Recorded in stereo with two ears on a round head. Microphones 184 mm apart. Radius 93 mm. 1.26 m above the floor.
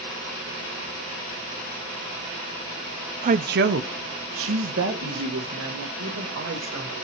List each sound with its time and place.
3.2 s a woman speaking: 35° right (ahead or behind), 0.5 m; by 6.9 s 75° right (ahead or behind), 3 m